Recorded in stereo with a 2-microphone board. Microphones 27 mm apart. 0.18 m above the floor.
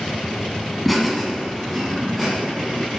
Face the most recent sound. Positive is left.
turn(degrees=5)  # may be behind; listen again after turning